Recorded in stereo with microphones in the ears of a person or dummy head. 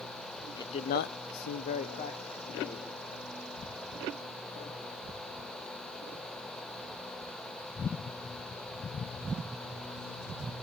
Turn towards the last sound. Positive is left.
turn(degrees=20)  # may be behind; listen again after turning